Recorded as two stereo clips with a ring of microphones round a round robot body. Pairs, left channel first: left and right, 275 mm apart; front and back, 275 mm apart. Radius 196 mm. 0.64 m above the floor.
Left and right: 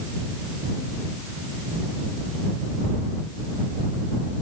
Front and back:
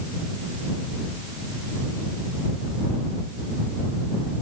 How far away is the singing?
I don't hear singing.